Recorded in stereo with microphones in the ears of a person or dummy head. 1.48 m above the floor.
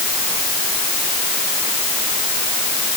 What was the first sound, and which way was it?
Only background noise.